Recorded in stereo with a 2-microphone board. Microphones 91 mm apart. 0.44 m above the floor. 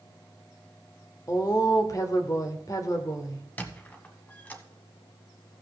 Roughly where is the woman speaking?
Left.